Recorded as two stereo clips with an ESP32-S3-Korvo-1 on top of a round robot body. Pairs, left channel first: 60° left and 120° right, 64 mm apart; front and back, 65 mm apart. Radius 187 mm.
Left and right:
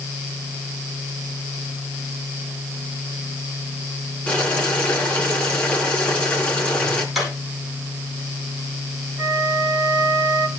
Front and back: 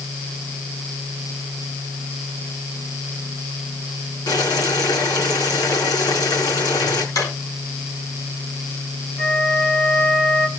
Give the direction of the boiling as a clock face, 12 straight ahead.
12 o'clock.